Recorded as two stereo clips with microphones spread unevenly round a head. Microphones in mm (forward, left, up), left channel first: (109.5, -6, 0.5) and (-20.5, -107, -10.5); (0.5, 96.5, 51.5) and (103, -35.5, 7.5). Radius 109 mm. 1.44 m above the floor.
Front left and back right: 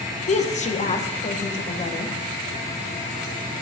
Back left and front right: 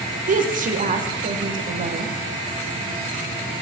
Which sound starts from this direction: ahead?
A woman speaking, at 0.3 s.